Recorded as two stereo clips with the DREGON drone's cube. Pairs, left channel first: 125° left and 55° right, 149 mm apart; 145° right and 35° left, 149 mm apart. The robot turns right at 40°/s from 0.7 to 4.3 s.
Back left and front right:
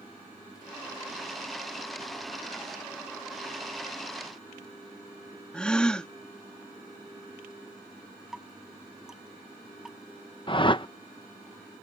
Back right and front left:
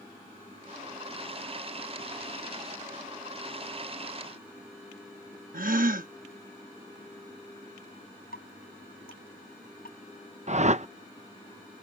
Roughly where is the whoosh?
Left.